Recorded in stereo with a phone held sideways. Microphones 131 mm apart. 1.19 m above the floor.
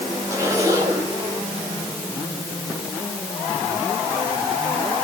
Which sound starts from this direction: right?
A zipper, at 0.3 s.